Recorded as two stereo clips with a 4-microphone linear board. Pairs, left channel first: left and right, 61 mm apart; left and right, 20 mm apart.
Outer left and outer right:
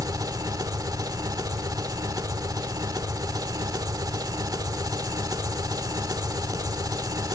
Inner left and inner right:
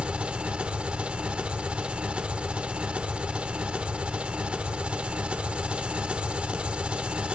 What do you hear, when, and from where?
0.0 s an engine running: 70° right (ahead or behind), 1.2 m